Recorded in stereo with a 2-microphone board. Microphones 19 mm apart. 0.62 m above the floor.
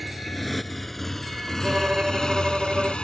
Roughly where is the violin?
Right.